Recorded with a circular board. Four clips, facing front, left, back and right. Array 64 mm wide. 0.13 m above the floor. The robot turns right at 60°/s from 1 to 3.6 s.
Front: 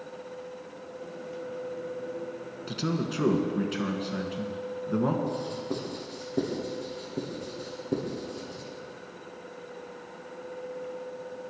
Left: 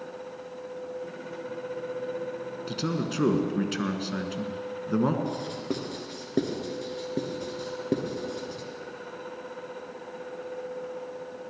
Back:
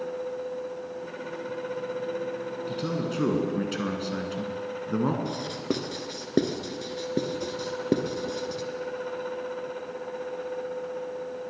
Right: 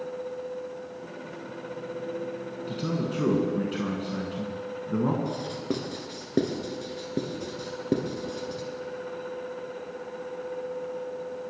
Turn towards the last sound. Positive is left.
turn(degrees=-175)